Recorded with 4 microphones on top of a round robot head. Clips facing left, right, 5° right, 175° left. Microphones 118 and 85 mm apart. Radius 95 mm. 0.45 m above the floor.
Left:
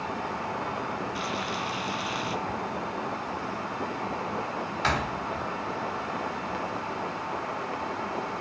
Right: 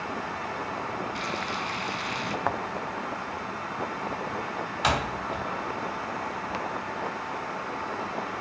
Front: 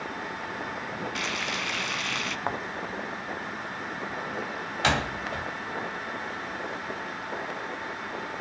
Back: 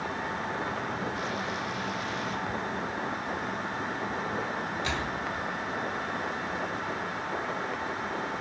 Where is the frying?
5° left, 1.5 m.